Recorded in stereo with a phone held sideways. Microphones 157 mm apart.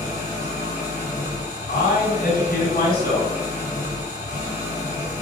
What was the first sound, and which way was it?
An engine running, 55° left (ahead or behind).